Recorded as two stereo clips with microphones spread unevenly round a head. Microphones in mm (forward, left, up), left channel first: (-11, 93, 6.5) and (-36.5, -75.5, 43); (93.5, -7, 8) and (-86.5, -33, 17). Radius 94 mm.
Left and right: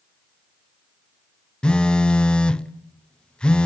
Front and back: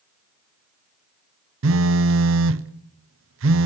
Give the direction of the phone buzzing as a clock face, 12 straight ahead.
7 o'clock.